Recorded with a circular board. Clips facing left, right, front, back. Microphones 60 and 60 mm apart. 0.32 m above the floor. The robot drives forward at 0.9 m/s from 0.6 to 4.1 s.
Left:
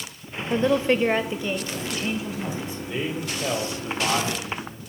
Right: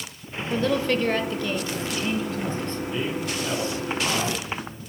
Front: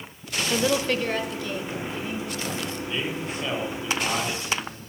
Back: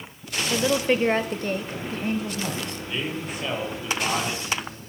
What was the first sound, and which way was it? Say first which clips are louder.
A woman speaking: left 3 dB, back 2 dB; 85° left.